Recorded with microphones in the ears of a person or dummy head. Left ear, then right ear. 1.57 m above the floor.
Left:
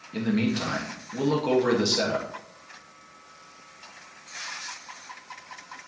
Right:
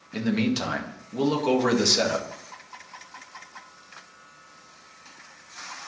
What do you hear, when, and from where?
0.1 s a man speaking: 25° right (ahead or behind), 2 m